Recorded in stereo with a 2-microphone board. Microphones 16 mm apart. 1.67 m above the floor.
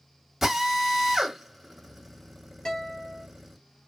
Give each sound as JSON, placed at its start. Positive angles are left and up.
{"t": 0.4, "sound": "a drill", "side_deg": -10, "distance_m": 1.6}
{"t": 2.6, "sound": "a guitar", "side_deg": 30, "distance_m": 1.7}